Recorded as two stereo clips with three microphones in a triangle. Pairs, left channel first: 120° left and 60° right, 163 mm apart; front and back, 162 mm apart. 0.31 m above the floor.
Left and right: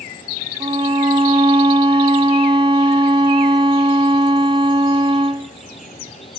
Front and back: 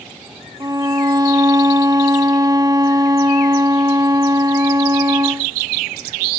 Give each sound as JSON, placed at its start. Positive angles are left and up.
{"t": 0.6, "sound": "a violin", "azimuth_deg": -115, "distance_m": 0.7}